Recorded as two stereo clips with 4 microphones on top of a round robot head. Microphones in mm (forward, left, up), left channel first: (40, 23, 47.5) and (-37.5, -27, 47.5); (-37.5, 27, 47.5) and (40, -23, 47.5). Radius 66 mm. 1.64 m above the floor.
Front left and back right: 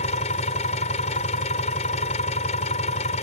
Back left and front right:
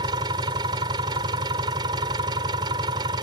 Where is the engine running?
15° left.